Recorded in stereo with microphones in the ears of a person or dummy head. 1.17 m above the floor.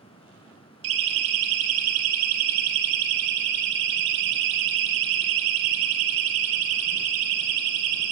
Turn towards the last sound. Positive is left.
turn(degrees=-85)